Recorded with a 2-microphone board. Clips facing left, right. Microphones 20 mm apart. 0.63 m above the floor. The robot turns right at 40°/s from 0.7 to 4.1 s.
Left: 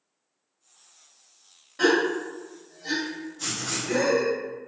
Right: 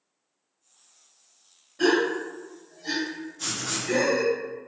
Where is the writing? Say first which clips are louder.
Even; 5° right (ahead or behind), 0.7 m; by 4.0 s 10° right (ahead or behind), 0.7 m.